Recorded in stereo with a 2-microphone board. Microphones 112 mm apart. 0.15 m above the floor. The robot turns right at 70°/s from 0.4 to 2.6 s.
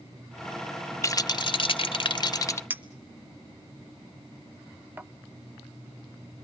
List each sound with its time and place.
1.0 s a rattle: 35° left, 0.5 m; by 2.6 s 145° left, 0.5 m
2.7 s a clink: 20° right (ahead or behind), 0.6 m